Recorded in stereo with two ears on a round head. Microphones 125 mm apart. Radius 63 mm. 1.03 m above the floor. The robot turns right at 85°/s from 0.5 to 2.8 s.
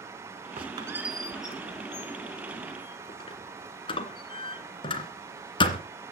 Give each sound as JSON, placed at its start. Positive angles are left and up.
{"t": 0.6, "sound": "a squeak", "side_deg": -45, "distance_m": 2.0}